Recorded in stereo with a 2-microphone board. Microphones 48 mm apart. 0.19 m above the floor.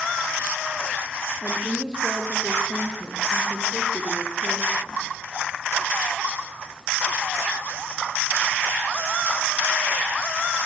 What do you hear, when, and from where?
1.4 s a woman speaking: 20° right (ahead or behind), 5 m; by 5.0 s 10° left (ahead or behind), 7.5 m